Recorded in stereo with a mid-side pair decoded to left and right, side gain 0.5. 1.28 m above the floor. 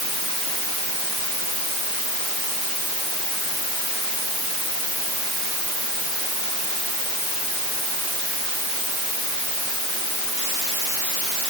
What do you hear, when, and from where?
Only background noise.